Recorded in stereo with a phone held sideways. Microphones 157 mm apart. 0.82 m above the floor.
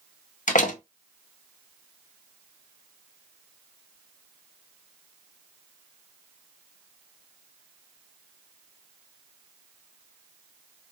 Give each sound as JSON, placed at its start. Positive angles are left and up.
{"t": 0.5, "sound": "a door slam", "side_deg": 55, "distance_m": 0.6}